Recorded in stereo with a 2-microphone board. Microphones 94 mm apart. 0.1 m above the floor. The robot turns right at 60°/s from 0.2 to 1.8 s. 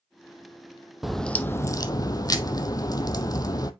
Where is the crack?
5° right, 0.5 m; by 3.7 s 45° left, 0.5 m.